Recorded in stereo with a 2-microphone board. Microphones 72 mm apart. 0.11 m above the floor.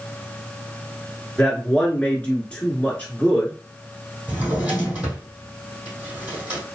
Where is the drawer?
25° right (ahead or behind), 2.5 m.